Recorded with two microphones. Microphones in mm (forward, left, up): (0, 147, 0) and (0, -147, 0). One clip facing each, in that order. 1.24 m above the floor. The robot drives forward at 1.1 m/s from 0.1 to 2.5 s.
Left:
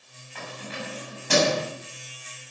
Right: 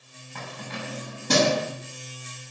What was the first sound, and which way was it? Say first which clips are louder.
Keys jangling: even; 60° right (ahead or behind).